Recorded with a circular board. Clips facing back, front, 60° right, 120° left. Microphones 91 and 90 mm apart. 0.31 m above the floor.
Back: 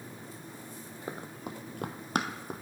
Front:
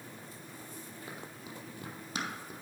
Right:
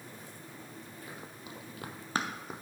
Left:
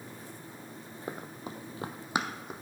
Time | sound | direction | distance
1.1 | running footsteps | 140° left | 0.8 m